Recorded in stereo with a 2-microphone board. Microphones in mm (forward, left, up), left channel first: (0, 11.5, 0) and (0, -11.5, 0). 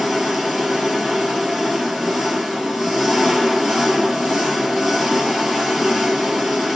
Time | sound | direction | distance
0.0 | an engine running | 20° right (ahead or behind) | 2 m